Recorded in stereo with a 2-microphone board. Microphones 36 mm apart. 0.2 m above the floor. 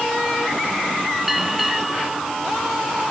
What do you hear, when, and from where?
1.3 s a bell: 5° right (ahead or behind)